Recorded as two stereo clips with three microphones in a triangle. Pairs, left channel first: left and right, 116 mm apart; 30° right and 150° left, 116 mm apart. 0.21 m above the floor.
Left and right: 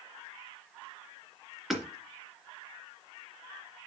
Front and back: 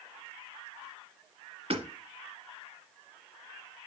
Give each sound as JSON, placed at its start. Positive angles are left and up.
{"t": 1.7, "sound": "hammering", "azimuth_deg": 180, "distance_m": 2.5}